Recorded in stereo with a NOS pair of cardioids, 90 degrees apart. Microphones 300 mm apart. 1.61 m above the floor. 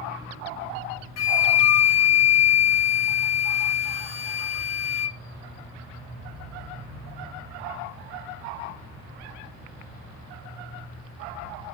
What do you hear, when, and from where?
1.2 s a flute: 60° left, 1.6 m